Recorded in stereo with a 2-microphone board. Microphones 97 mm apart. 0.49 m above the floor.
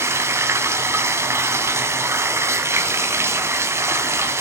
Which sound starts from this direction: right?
Running water, at 0.0 s.